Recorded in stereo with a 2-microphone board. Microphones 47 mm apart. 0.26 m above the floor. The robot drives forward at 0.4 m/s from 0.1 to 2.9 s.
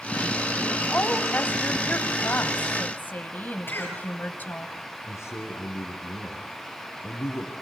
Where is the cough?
45° left (ahead or behind), 6 m.